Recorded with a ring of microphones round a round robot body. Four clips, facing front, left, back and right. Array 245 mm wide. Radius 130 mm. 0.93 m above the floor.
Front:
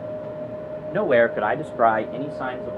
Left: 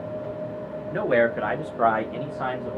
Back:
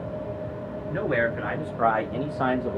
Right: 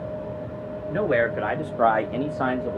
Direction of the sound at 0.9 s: Straight ahead.